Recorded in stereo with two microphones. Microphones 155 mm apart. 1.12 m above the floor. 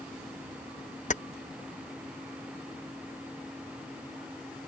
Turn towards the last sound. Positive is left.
turn(degrees=50)  # may be behind; listen again after turning